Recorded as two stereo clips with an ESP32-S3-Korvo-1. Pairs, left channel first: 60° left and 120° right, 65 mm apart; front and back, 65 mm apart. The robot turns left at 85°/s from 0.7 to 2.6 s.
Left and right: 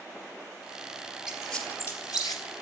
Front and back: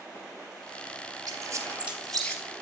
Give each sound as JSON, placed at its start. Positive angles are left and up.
{"t": 1.3, "sound": "a squeak", "azimuth_deg": 160, "distance_m": 3.0}